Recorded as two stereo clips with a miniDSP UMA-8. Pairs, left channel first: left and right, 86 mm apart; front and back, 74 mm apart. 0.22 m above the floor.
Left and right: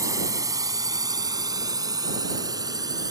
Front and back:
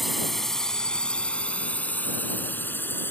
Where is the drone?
90° right; by 3.1 s 55° right.